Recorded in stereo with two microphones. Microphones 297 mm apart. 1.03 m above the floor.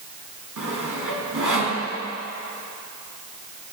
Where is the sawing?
80° right, 3 m.